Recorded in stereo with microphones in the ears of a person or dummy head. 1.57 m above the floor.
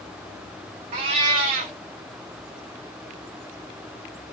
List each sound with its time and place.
0.9 s a cat meowing: 20° right (ahead or behind), 0.8 m